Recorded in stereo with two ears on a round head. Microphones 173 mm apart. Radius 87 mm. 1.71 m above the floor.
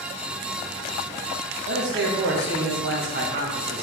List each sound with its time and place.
1.7 s a man speaking: 60° right (ahead or behind), 1.0 m